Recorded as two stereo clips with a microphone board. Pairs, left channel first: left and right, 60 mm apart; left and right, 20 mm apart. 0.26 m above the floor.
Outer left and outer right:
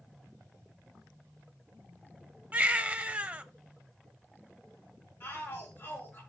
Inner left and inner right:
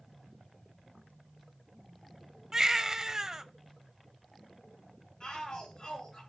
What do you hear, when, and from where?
2.5 s a baby crying: 20° right (ahead or behind), 0.7 m
5.2 s a shout: 40° left (ahead or behind), 3 m